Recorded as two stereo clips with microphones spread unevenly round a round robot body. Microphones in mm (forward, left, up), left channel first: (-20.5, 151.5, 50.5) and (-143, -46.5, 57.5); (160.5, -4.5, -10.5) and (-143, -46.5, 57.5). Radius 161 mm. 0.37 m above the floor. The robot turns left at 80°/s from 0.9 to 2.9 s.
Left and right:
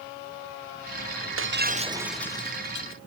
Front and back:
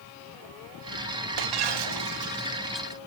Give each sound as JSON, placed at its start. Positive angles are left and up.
{"t": 1.4, "sound": "breaking glass", "azimuth_deg": -150}